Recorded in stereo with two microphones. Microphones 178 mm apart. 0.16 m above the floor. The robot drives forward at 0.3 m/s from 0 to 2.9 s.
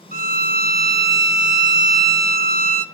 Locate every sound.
0.1 s a violin: 55° right (ahead or behind), 0.7 m